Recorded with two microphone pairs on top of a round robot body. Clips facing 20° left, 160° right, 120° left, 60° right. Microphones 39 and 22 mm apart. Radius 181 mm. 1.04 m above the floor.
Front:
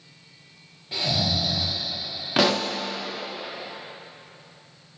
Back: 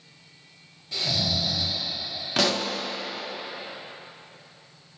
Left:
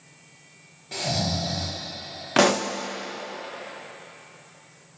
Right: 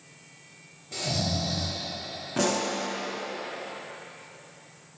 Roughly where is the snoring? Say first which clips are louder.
Front 2 dB, left 2 dB; left.